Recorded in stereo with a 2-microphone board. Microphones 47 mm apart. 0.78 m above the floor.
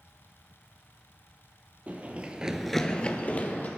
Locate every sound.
1.9 s running footsteps: 30° right (ahead or behind), 1.4 m; by 3.7 s 35° left (ahead or behind), 1.7 m